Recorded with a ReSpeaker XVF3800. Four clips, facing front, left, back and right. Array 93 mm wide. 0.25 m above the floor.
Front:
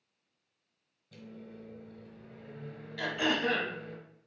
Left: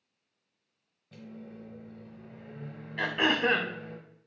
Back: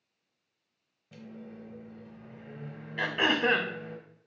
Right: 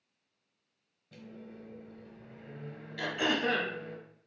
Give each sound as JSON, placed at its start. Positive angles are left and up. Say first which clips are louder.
{"t": 1.1, "sound": "a microwave", "louder": "left 3 dB, back 3 dB", "azimuth_deg": 170, "distance_m": 1.1}
{"t": 3.0, "sound": "throat clearing", "louder": "left 4 dB, back 3 dB", "azimuth_deg": 135, "distance_m": 0.5}